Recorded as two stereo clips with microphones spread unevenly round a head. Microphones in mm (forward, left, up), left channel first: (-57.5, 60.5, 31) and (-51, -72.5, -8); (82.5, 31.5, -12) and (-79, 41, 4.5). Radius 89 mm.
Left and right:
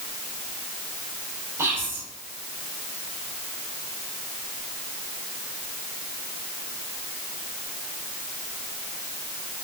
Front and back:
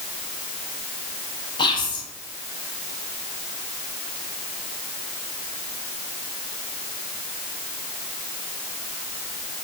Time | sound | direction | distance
1.6 | whispering | 5° left | 0.6 m